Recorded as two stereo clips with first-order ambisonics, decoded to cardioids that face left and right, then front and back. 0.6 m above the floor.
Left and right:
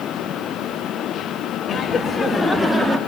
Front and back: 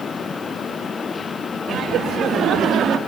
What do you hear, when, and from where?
1.7 s laughter: 135° left, 1.4 m; by 3.0 s 150° right, 1.3 m